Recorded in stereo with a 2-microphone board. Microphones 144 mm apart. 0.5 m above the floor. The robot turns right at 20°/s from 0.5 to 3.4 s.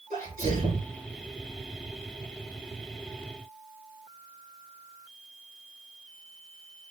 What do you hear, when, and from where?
0.1 s a sneeze: 70° right (ahead or behind), 6 m; by 0.9 s 80° right, 6 m